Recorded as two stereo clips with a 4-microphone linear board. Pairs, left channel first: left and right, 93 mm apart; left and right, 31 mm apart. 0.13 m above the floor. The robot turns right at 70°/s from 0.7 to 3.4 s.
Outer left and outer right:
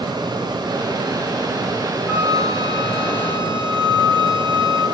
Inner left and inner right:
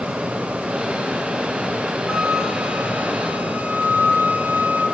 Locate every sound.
2.1 s a flute: 165° right, 2 m; by 4.8 s 70° right, 2 m